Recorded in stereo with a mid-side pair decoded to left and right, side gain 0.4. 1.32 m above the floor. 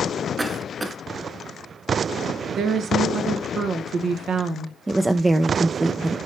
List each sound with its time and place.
0.4 s a cough: 20° right, 1.1 m
2.5 s a woman speaking: 70° right, 0.9 m
4.9 s a woman speaking: 25° right, 0.5 m